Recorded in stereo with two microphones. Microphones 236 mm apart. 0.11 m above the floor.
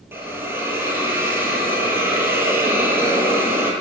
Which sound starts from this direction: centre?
A hiss, at 0.1 s.